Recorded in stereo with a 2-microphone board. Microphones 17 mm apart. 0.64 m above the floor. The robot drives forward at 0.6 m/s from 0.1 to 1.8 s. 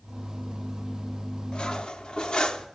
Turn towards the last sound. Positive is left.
turn(degrees=60)  # may be behind; listen again after turning